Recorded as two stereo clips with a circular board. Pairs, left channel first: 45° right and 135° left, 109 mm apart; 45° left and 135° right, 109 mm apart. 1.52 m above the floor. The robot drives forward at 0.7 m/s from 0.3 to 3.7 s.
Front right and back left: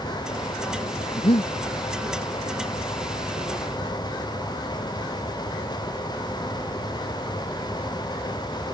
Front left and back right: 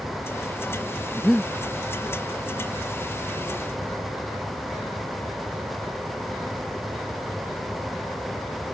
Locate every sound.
1.2 s breathing: 35° right; by 1.5 s 45° right